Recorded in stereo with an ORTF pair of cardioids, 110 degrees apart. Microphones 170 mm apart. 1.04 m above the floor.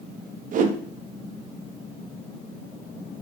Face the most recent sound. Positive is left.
turn(degrees=-50)